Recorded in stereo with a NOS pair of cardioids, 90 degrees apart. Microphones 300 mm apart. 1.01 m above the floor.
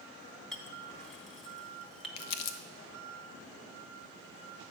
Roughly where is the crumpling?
Ahead left.